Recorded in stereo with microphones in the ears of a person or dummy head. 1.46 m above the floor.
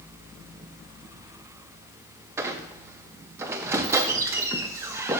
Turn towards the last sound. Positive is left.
turn(degrees=-15)  # may be behind; listen again after turning